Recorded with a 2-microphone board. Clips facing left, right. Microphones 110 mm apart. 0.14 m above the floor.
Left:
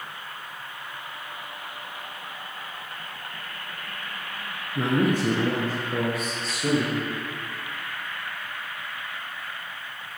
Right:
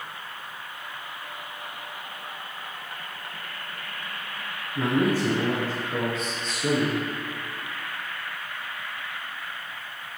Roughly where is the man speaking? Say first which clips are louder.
Even; left.